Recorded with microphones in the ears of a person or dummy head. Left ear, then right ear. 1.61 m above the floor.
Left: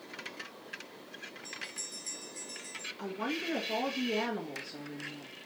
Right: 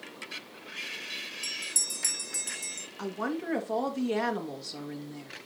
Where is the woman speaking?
25° right (ahead or behind), 1.6 m.